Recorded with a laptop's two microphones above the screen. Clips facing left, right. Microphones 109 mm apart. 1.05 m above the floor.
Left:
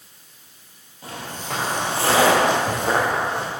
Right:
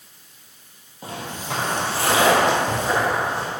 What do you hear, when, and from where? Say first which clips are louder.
1.0 s footsteps: right 1 dB; 30° right (ahead or behind), 1.5 m; by 3.5 s 65° left (ahead or behind), 3 m